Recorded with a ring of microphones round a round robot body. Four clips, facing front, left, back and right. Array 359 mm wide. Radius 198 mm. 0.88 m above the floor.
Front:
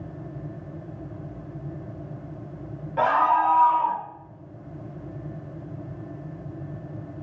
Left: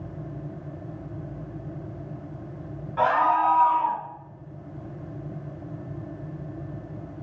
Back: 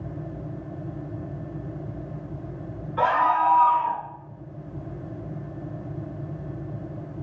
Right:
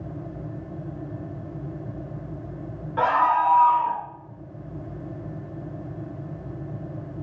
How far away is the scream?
About 1.7 m.